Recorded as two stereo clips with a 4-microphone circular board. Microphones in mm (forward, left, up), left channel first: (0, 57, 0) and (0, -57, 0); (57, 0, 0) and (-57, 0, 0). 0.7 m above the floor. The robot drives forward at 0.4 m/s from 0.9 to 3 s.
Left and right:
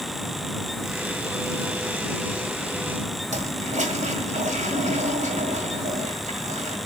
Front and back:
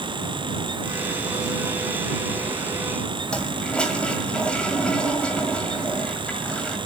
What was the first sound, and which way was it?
A toilet flushing, 80° right.